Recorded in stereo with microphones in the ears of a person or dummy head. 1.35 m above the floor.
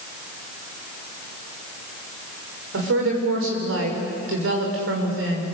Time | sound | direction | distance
2.7 | a woman speaking | 80° right | 5.5 m